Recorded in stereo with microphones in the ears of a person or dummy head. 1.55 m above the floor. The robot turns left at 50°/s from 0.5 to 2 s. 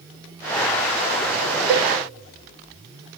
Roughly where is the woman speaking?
No woman speaking in this recording.